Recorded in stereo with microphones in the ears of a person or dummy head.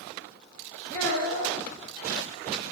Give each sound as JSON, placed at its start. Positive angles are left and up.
{"t": 0.9, "sound": "a child speaking", "side_deg": 15, "distance_m": 1.5}